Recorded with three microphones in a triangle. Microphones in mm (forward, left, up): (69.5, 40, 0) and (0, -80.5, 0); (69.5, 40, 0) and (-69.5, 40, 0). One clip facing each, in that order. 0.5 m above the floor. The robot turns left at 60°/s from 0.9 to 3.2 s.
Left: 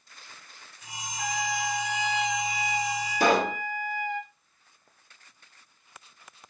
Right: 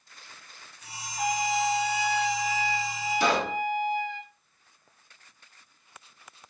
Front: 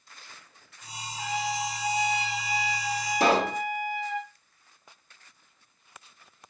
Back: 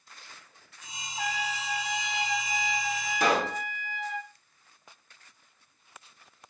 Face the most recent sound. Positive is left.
turn(degrees=50)